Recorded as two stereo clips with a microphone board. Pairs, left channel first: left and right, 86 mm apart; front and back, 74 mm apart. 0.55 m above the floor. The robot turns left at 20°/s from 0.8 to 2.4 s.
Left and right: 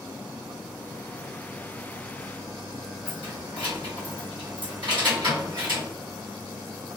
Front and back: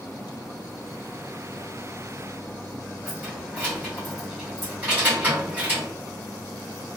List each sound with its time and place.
3.0 s keys jangling: 110° right, 1.9 m